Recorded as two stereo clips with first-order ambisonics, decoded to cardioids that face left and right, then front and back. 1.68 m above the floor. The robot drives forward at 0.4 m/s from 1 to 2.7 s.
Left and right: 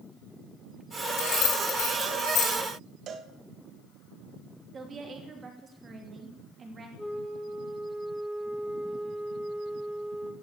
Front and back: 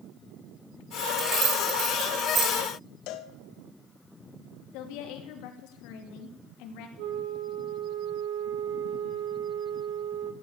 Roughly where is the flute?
Behind.